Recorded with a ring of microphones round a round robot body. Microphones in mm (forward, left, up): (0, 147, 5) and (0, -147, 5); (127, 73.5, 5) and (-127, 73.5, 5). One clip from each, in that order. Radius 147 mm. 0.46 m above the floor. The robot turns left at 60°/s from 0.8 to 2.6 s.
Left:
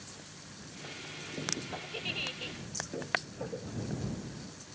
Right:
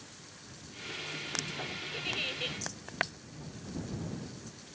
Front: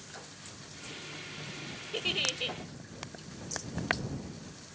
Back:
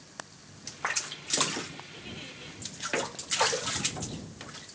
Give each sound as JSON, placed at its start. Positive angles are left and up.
{"t": 1.9, "sound": "a giggle", "azimuth_deg": 5}